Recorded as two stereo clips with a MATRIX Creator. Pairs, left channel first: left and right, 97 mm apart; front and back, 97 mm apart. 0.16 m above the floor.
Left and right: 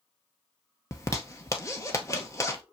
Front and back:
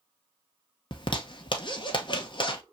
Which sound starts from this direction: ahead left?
A zipper, at 0.9 s.